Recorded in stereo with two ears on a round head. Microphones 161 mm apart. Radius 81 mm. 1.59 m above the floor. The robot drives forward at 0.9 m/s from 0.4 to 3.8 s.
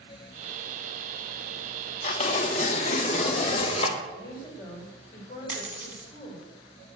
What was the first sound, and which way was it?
Tearing paper, 35° left (ahead or behind).